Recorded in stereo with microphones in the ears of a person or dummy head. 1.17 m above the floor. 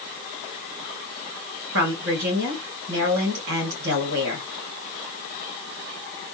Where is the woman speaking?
60° right (ahead or behind), 1.5 m.